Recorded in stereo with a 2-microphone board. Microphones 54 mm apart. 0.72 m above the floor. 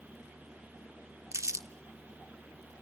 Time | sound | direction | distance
1.3 | crumpling | 65° right (ahead or behind) | 1.0 m